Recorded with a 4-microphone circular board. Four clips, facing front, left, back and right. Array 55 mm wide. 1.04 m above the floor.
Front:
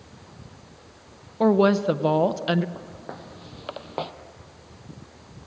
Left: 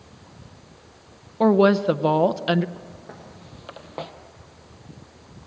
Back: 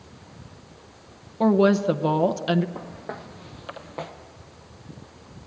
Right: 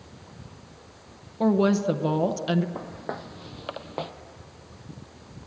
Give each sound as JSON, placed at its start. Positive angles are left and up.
{"t": 1.4, "sound": "a woman speaking", "azimuth_deg": 85, "distance_m": 0.6}
{"t": 2.8, "sound": "footsteps", "azimuth_deg": -100, "distance_m": 2.0}